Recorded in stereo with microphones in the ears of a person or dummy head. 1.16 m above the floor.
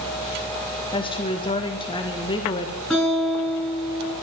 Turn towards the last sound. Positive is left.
turn(degrees=5)  # may be behind; listen again after turning